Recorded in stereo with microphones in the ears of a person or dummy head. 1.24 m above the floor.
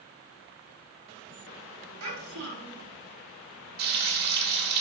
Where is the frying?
50° right (ahead or behind), 1.5 m.